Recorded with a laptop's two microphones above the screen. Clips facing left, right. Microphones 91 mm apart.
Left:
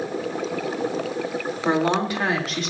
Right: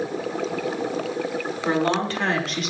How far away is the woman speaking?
About 3 m.